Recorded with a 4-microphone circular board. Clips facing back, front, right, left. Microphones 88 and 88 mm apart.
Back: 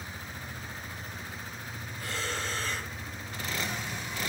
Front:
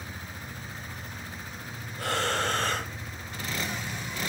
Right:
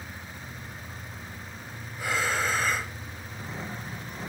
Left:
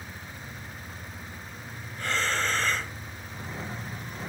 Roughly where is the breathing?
Ahead.